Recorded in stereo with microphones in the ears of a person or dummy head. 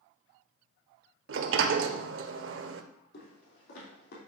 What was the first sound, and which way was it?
A sliding door, 70° right (ahead or behind).